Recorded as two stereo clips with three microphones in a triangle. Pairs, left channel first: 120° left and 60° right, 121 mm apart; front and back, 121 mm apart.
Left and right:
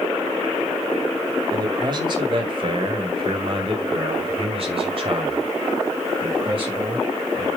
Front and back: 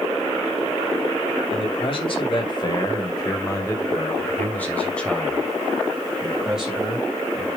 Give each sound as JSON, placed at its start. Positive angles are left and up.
{"t": 1.5, "sound": "a man speaking", "azimuth_deg": -15, "distance_m": 2.0}